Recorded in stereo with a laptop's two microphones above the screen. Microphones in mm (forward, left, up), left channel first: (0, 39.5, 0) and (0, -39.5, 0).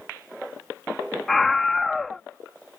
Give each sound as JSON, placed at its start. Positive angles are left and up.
{"t": 1.3, "sound": "a scream", "side_deg": 5}